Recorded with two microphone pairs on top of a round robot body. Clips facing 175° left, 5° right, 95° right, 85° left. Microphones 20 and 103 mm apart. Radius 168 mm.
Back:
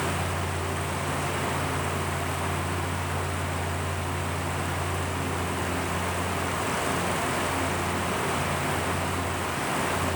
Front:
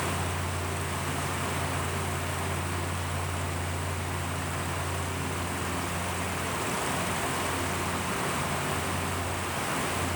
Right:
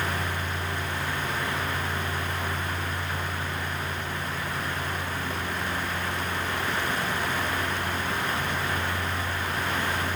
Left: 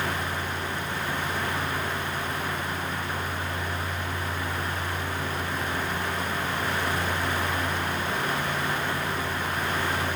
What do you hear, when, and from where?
Only background noise.